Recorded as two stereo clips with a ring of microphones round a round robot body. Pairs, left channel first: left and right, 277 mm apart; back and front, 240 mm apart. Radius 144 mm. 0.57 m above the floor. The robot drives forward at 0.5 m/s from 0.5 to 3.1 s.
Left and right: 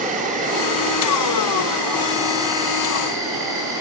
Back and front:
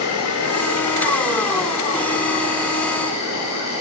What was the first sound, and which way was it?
An insect, 155° right.